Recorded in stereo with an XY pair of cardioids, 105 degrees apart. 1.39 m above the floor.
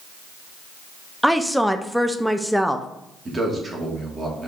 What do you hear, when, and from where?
1.2 s a woman speaking: straight ahead, 0.6 m
3.2 s a man speaking: 35° right, 2.5 m